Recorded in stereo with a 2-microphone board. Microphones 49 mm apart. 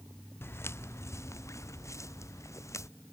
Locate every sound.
0.4 s footsteps: 55° left (ahead or behind); by 2.9 s 85° left